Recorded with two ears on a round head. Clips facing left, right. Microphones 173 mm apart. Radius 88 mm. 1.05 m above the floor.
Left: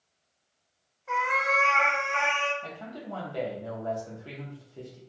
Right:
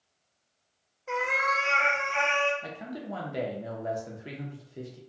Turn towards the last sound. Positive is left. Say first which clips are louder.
# right 2 dB
turn(degrees=-20)  # may be behind; listen again after turning